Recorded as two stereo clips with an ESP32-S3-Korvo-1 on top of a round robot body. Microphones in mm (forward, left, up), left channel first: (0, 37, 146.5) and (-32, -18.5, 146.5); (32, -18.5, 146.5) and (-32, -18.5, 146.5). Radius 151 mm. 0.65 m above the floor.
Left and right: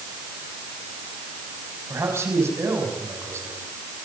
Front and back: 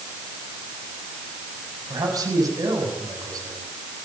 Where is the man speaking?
165° right, 6 m.